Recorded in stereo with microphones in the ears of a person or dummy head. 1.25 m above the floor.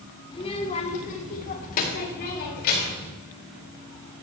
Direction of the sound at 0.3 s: 30° left (ahead or behind).